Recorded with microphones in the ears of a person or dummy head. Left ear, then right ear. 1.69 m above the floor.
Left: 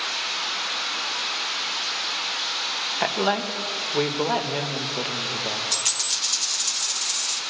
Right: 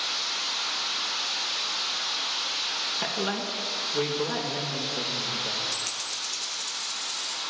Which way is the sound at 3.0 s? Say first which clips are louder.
Left 6 dB; 20° left (ahead or behind).